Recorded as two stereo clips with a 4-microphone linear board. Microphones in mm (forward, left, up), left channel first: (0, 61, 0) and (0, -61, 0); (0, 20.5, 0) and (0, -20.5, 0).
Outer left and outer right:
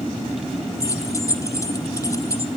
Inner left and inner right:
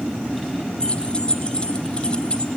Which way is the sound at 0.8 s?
25° left (ahead or behind).